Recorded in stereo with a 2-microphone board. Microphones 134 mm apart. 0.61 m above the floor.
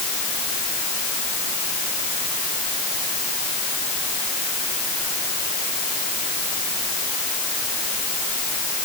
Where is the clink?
No clink in this recording.